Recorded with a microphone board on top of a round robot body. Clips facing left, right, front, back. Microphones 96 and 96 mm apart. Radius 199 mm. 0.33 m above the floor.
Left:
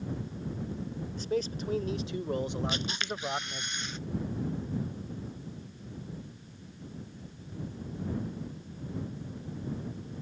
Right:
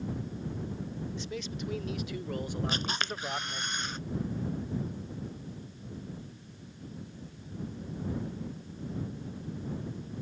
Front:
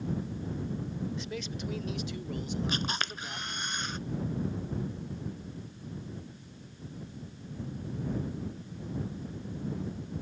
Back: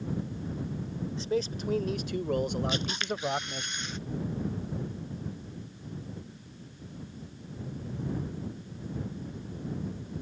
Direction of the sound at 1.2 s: 125° left.